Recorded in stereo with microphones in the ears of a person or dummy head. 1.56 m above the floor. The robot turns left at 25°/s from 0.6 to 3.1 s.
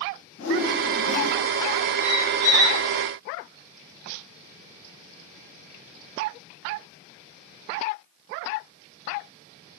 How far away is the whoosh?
About 1.3 m.